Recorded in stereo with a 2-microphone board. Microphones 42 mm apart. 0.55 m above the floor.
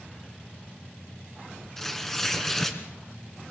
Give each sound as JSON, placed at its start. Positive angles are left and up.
{"t": 1.8, "sound": "tearing paper", "side_deg": 5, "distance_m": 2.5}